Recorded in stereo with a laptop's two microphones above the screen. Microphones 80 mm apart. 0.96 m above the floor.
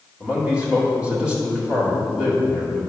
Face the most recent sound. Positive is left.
turn(degrees=-15)  # may be behind; listen again after turning